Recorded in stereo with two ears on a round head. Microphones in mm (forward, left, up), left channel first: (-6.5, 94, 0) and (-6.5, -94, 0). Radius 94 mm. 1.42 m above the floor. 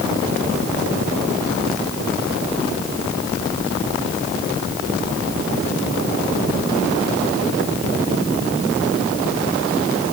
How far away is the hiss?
No hiss in this recording.